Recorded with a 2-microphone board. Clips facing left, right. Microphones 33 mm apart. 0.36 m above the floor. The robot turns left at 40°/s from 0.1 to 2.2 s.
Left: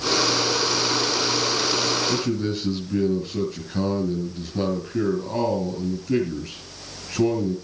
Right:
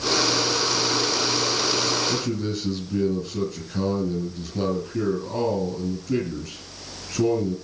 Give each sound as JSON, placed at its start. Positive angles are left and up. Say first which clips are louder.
{"t": 2.1, "sound": "a man speaking", "louder": "left 2 dB", "side_deg": 25, "distance_m": 6.0}